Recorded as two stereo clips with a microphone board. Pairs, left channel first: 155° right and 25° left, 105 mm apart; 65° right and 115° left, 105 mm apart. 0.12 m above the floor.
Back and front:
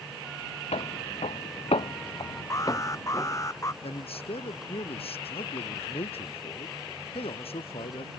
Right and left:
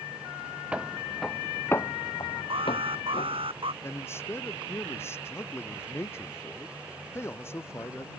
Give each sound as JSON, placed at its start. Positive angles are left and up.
{"t": 0.7, "sound": "footsteps", "azimuth_deg": -170}
{"t": 2.5, "sound": "an alarm", "azimuth_deg": 145}
{"t": 3.8, "sound": "a man speaking", "azimuth_deg": -135}